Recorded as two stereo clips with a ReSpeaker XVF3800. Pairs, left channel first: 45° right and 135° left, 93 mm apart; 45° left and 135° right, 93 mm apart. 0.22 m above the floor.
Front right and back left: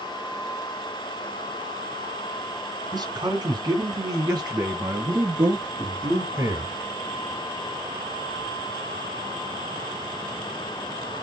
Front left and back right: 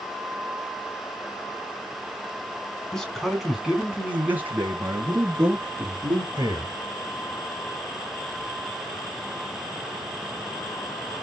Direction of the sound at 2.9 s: 125° left.